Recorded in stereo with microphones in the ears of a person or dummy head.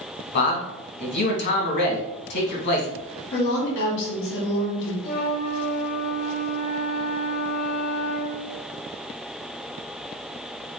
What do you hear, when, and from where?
0.3 s a man speaking: 55° left (ahead or behind), 1.3 m
3.3 s a woman speaking: 65° left (ahead or behind), 2 m
5.0 s a flute: 30° left (ahead or behind), 2.5 m